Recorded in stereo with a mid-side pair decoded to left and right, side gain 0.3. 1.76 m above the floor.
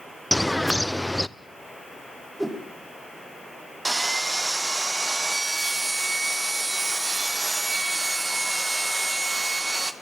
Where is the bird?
10° left, 0.7 m.